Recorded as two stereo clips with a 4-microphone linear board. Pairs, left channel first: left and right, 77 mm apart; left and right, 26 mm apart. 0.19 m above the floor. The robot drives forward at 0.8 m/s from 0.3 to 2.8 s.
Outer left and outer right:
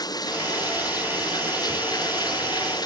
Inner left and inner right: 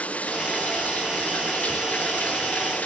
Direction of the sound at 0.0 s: 60° left (ahead or behind).